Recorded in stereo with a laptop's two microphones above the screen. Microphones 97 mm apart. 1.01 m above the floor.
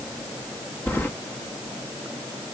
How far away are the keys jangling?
About 0.8 m.